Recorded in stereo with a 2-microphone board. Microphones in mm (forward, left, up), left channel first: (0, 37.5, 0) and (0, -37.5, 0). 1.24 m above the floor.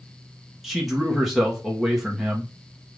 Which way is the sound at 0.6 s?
Centre (ahead or behind).